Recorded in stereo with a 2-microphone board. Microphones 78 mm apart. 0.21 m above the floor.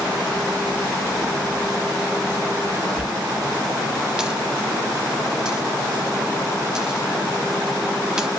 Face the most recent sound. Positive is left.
turn(degrees=-10)  # may be behind; listen again after turning